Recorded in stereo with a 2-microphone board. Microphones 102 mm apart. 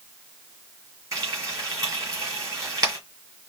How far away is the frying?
About 4 m.